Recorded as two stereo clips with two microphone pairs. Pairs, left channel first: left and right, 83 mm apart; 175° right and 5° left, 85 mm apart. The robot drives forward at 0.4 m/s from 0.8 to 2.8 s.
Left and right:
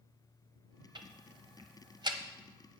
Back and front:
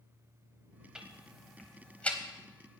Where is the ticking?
75° right, 1.0 m; by 2.2 s 105° right, 1.0 m.